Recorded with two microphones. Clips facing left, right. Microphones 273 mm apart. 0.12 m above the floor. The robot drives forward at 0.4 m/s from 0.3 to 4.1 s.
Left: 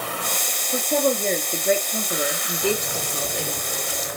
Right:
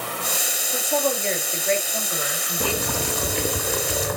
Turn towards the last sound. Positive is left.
turn(degrees=-60)  # may be behind; listen again after turning